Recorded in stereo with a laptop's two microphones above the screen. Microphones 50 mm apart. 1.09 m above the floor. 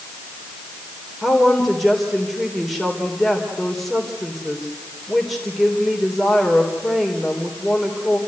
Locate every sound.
1.2 s a woman speaking: centre (ahead or behind), 3.5 m